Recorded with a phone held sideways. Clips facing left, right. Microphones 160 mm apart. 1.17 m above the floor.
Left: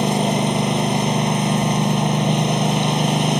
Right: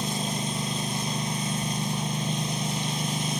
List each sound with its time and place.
0.0 s a lawn mower: 70° left (ahead or behind)